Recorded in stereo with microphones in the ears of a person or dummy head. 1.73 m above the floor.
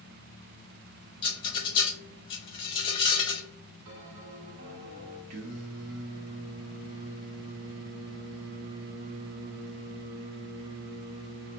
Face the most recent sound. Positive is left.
turn(degrees=-40)  # may be behind; listen again after turning